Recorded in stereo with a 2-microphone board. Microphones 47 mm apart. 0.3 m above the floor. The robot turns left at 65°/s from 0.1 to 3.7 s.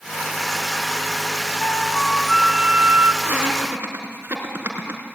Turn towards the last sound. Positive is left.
turn(degrees=-60)  # may be behind; listen again after turning